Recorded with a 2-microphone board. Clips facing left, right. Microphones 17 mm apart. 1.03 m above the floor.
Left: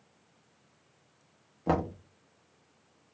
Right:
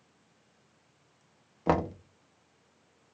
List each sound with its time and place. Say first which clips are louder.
1.7 s knocking: right 2 dB; 20° right (ahead or behind), 0.7 m